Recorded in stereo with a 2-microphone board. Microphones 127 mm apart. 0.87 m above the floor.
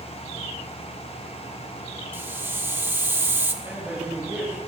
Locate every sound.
2.1 s a hiss: 15° right (ahead or behind), 1.1 m
3.6 s a man speaking: 10° right (ahead or behind), 5 m